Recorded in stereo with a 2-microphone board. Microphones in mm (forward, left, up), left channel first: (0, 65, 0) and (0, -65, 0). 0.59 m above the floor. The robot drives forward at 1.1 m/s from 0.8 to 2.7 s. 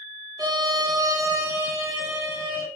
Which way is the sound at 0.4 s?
30° right (ahead or behind).